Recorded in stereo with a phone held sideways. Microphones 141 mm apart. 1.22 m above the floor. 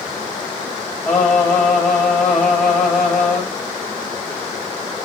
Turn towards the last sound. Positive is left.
turn(degrees=10)  # may be behind; listen again after turning